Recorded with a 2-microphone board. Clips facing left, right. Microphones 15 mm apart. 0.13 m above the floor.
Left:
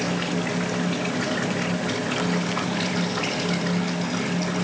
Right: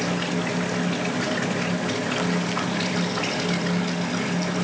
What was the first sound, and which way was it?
Only background noise.